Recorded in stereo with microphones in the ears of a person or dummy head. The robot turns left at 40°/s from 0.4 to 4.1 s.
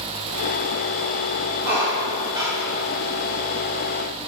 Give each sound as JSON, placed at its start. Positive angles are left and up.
{"t": 1.6, "sound": "a squeak", "azimuth_deg": -125, "distance_m": 1.7}